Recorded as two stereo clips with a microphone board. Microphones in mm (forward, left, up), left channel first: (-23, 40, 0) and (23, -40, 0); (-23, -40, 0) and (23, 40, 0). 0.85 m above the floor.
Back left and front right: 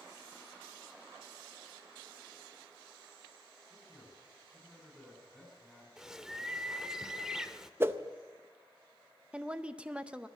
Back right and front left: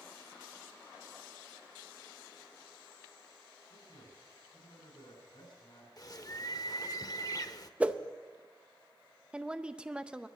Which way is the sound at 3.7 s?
150° right.